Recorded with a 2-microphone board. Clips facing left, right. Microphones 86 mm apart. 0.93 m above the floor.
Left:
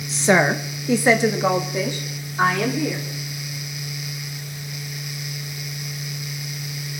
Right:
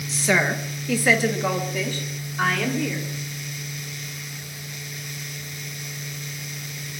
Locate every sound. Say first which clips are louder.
0.1 s a woman speaking: left 5 dB; 25° left (ahead or behind), 0.6 m; by 3.1 s 20° left (ahead or behind), 3 m